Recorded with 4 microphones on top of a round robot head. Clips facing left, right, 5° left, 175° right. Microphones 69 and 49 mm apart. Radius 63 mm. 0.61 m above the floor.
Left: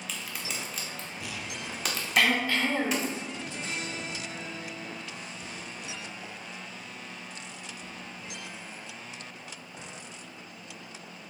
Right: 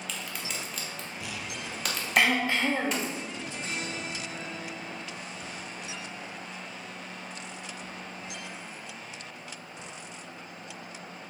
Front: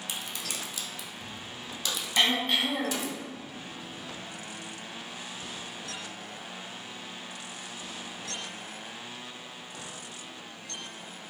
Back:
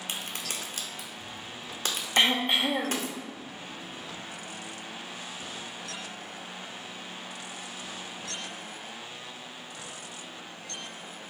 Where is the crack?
Straight behind, 0.9 m.